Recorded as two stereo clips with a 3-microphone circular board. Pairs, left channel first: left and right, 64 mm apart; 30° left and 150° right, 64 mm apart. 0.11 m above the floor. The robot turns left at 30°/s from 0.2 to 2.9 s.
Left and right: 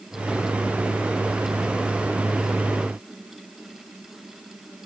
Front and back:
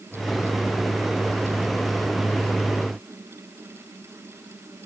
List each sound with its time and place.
Only background noise.